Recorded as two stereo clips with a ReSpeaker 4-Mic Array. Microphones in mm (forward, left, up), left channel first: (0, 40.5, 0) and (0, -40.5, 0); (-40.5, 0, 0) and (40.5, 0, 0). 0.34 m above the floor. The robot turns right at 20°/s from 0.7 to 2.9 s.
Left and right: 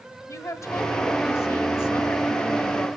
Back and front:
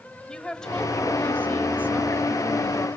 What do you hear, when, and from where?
0.3 s a woman speaking: 105° left, 1.1 m; by 2.9 s 145° left, 1.1 m